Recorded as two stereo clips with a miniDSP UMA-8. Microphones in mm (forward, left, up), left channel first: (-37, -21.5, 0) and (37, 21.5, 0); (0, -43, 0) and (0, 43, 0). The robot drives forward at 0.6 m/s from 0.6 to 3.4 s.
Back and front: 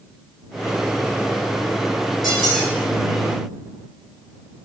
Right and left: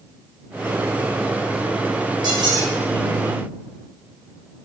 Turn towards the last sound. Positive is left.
turn(degrees=130)